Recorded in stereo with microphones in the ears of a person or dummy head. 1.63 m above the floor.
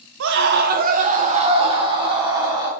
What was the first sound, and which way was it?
A scream, 65° right (ahead or behind).